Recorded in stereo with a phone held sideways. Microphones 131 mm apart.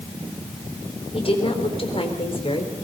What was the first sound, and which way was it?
A woman speaking, 40° left (ahead or behind).